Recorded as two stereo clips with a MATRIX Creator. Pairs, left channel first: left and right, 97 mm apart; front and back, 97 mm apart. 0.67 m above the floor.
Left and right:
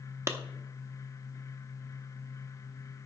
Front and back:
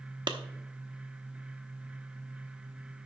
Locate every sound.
0.3 s a clap: 145° right, 0.7 m